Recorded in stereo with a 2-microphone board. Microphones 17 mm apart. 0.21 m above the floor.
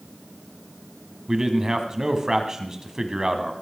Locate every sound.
1.3 s a man speaking: 35° right (ahead or behind), 1.2 m